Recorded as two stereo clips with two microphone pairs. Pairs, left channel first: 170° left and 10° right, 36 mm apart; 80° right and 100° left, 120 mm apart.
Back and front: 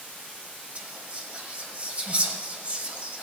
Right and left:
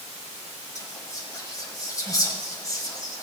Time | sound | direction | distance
0.8 | whispering | 40° right | 1.8 m